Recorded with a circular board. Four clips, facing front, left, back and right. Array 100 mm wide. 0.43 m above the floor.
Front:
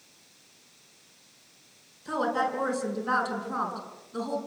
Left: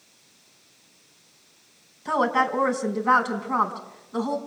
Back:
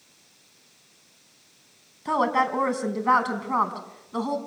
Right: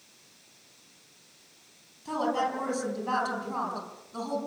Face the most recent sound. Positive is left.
turn(degrees=145)